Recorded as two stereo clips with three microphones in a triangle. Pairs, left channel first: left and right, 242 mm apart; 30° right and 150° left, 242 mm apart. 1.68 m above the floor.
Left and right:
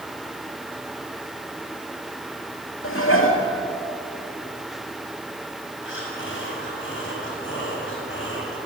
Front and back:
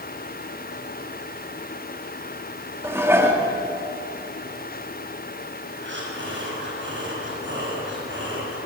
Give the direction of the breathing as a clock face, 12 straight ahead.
8 o'clock.